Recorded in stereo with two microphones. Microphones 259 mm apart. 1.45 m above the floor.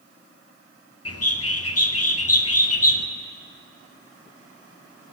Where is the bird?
65° left (ahead or behind), 0.8 m.